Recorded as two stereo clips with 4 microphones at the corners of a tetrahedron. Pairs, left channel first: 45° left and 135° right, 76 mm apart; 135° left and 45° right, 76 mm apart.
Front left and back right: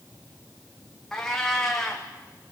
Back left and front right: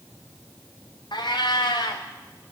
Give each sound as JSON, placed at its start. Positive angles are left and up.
{"t": 1.1, "sound": "a cat meowing", "azimuth_deg": 125, "distance_m": 2.5}